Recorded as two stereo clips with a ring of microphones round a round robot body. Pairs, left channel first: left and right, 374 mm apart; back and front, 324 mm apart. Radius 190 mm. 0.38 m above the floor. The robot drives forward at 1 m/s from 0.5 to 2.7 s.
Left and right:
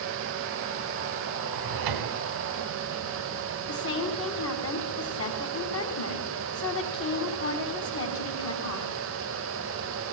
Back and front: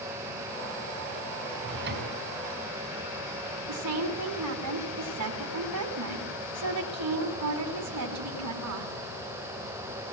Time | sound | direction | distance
1.5 | a drawer | 55° right | 2.5 m
3.7 | a woman speaking | 35° left | 4 m